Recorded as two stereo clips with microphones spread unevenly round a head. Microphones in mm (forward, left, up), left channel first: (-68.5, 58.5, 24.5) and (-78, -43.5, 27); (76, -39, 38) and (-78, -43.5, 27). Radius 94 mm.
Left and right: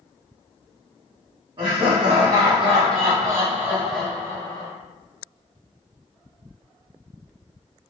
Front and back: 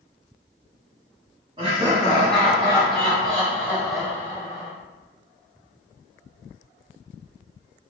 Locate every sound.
1.6 s laughter: 125° right, 1.3 m; by 4.7 s 55° left, 0.7 m